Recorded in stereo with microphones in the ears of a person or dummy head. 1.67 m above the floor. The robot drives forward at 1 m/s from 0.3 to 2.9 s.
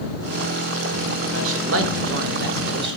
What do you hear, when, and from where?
1.3 s a man speaking: 75° right (ahead or behind), 2.5 m; by 3.0 s 60° right (ahead or behind), 2.5 m